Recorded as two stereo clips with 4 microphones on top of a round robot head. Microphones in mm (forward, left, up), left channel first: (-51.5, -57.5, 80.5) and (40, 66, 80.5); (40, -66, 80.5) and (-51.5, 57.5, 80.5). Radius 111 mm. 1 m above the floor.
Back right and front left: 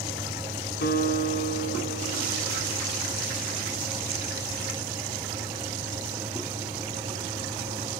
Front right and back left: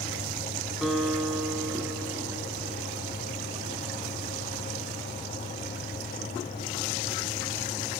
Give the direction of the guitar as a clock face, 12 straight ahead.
5 o'clock.